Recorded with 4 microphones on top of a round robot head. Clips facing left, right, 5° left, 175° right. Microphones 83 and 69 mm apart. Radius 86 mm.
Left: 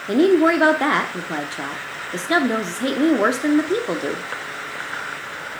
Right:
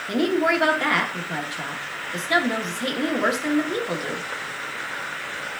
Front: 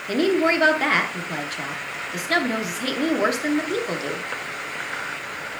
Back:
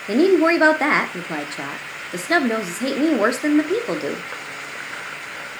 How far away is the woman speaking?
About 0.9 m.